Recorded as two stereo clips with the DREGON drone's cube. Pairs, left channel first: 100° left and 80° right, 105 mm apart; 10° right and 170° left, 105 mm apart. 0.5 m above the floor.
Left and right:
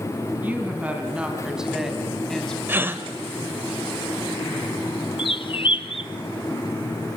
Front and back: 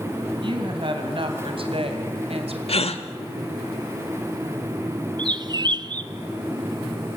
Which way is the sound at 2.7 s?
10° right.